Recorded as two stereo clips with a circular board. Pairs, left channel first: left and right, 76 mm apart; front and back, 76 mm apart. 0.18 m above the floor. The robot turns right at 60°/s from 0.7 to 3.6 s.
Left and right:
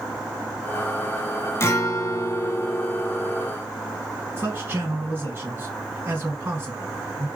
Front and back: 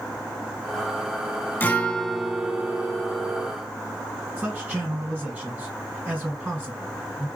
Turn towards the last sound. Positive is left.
turn(degrees=-110)